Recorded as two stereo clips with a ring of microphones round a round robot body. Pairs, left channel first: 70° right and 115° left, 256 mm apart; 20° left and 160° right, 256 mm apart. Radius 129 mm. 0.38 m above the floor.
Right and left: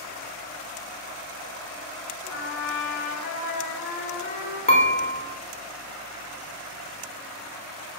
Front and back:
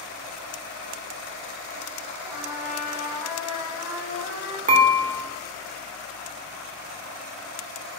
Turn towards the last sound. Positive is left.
turn(degrees=-115)